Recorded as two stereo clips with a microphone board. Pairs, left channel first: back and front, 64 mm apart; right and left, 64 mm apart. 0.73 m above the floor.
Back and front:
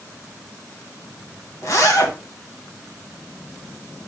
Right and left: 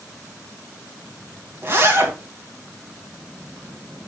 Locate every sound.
1.6 s a zipper: 145° left, 2.5 m